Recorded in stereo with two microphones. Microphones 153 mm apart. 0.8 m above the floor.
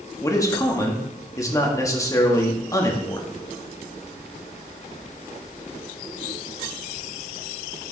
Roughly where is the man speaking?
Centre.